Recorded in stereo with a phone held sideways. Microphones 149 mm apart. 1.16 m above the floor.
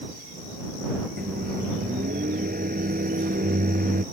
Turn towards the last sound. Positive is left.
turn(degrees=-85)